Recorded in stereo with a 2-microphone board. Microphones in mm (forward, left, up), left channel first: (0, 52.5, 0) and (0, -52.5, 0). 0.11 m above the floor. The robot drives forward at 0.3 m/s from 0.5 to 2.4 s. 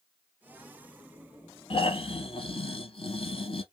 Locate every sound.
1.7 s snoring: 60° left (ahead or behind), 0.7 m